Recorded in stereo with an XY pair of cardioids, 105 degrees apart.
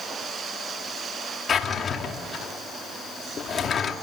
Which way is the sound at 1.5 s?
45° left.